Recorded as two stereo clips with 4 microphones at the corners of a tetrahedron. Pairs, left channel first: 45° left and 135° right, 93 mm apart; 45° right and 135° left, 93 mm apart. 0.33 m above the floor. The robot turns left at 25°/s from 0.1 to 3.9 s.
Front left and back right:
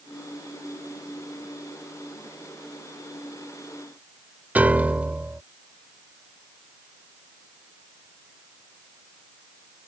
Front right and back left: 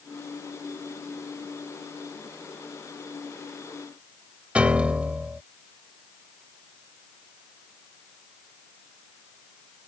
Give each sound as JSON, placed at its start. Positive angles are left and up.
{"t": 4.5, "sound": "a piano", "azimuth_deg": -175}